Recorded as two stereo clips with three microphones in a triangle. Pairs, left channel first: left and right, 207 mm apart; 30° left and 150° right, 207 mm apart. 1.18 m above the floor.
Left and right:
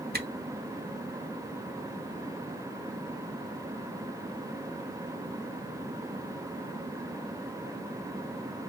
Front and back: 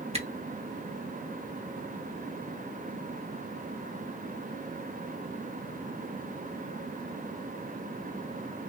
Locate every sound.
0.1 s a camera shutter: 100° right, 1.2 m